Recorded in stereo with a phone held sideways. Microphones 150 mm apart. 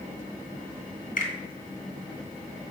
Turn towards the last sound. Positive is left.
turn(degrees=60)  # may be behind; listen again after turning